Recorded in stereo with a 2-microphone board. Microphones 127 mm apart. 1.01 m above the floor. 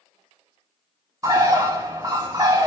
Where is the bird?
25° right (ahead or behind), 0.6 m.